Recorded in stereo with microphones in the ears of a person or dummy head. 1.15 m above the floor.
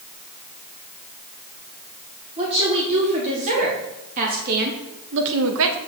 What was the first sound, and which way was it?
A woman speaking, 30° right (ahead or behind).